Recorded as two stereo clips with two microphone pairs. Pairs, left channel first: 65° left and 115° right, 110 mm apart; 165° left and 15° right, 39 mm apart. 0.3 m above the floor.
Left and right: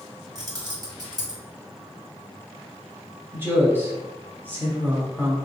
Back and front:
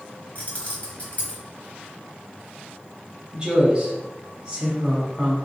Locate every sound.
0.3 s keys jangling: 160° right, 1.1 m
3.3 s a woman speaking: 60° right, 1.3 m